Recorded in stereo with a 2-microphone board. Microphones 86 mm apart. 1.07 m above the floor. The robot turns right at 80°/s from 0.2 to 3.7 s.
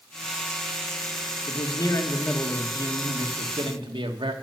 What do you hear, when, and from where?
1.5 s a man speaking: 105° left, 1.6 m; by 4.3 s 75° right, 1.6 m